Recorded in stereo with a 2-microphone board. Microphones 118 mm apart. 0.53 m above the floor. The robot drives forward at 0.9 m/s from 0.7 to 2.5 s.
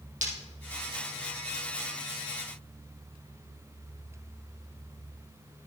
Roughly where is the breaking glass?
Right.